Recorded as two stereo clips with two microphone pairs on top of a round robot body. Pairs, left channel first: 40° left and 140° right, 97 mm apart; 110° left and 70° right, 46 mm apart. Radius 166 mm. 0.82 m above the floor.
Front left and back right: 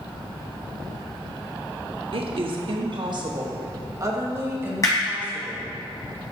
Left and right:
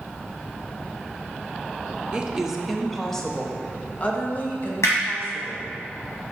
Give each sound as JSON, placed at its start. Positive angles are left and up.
{"t": 2.1, "sound": "a woman speaking", "azimuth_deg": -145, "distance_m": 1.1}
{"t": 4.8, "sound": "hammering", "azimuth_deg": 100, "distance_m": 1.7}